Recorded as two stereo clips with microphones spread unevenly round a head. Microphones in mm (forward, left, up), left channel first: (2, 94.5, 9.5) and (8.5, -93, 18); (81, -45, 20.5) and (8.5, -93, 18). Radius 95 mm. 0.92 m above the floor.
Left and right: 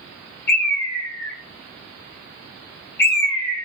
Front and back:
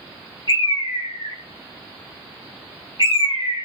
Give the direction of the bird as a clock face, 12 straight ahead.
9 o'clock.